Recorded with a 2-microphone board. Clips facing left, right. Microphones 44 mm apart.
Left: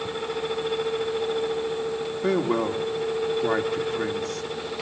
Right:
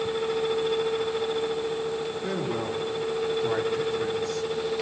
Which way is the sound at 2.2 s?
80° left.